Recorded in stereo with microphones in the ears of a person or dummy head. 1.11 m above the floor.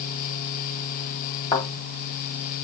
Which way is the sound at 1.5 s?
25° left (ahead or behind).